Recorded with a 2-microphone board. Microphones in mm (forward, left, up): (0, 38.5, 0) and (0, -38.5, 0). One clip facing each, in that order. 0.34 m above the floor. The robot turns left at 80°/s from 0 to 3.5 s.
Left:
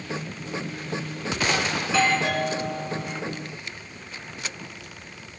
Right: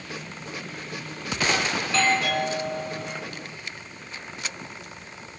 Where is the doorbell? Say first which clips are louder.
Left 2 dB; straight behind, 4.5 m; by 3.2 s 70° left, 4.5 m.